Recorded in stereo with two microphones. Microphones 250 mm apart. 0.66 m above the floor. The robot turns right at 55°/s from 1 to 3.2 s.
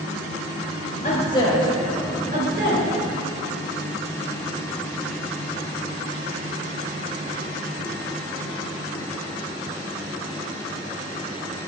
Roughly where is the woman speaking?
Left.